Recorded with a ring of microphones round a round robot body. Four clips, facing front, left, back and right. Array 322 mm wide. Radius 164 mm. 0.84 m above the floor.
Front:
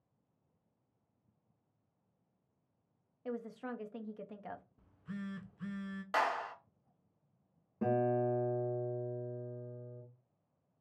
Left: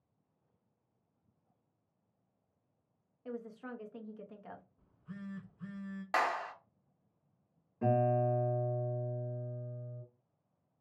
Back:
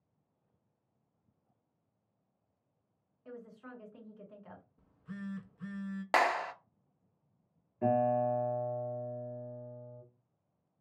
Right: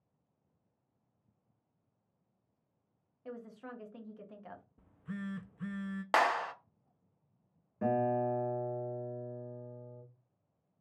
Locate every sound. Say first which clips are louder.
3.2 s a woman speaking: left 2 dB, front 7 dB; straight ahead, 0.8 m
4.8 s a phone buzzing: right 6 dB, back 4 dB; 80° right, 0.5 m
6.1 s a clap: right 4 dB, back 4 dB; 145° right, 0.5 m
7.8 s a guitar: left 1 dB, back 3 dB; 20° right, 1.9 m